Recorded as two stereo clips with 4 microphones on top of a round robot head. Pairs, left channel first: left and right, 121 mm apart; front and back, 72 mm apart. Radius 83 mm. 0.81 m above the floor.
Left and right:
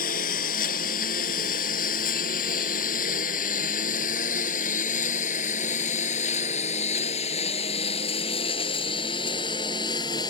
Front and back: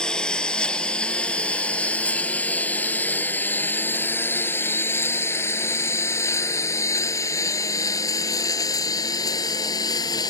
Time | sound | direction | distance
0.0 | a lawn mower | 80° left | ?